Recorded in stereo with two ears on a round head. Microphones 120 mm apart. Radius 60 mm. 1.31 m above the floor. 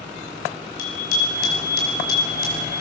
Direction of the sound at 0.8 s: 80° left.